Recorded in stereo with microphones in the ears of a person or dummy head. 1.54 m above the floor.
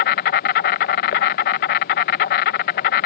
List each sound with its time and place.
0.0 s an insect: 40° left (ahead or behind)